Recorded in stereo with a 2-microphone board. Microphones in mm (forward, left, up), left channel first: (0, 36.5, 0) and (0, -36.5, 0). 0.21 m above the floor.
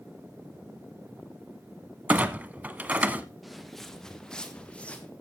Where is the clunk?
25° right (ahead or behind), 1.1 m.